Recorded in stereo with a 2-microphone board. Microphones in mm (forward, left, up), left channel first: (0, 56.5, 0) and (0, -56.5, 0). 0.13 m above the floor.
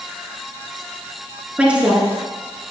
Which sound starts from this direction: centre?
A woman speaking, at 1.6 s.